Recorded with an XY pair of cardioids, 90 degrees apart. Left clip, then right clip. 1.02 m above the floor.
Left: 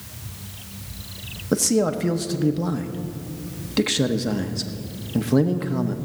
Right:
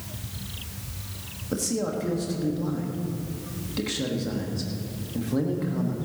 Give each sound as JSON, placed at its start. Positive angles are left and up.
{"t": 1.5, "sound": "a man speaking", "azimuth_deg": 60, "distance_m": 1.3}